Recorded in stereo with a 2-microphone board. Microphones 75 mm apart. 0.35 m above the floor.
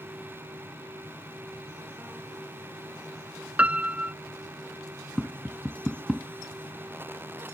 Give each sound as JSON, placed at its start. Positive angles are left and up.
{"t": 3.6, "sound": "a piano", "side_deg": -15}
{"t": 5.2, "sound": "tapping", "side_deg": 5}